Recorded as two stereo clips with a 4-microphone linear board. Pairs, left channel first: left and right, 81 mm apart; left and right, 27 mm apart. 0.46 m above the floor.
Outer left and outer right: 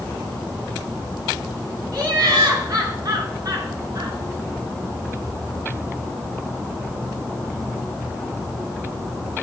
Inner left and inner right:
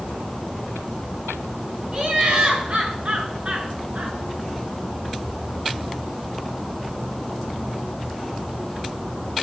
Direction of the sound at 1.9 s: 45° right (ahead or behind).